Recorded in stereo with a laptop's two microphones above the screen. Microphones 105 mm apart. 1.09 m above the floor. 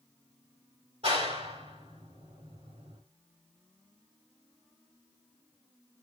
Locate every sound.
1.0 s a clap: 75° right (ahead or behind), 4 m